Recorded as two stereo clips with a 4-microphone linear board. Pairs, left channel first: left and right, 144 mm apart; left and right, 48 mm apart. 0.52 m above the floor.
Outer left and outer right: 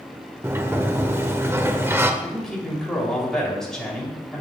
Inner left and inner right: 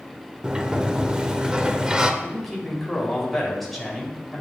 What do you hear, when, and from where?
0.4 s a sliding door: 15° right (ahead or behind), 0.6 m
2.2 s a man speaking: 5° left (ahead or behind), 2.5 m